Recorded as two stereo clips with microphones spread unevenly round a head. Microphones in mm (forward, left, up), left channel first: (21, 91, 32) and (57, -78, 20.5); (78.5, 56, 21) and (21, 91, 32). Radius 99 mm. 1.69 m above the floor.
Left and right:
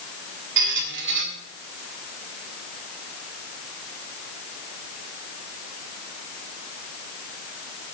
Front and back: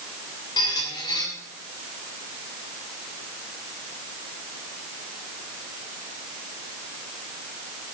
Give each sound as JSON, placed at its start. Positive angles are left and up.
{"t": 0.6, "sound": "a squeak", "azimuth_deg": -75, "distance_m": 2.0}